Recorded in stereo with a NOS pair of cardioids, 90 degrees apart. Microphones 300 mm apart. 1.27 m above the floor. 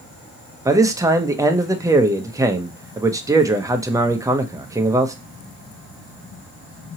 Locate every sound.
0.7 s a man speaking: 10° right, 0.8 m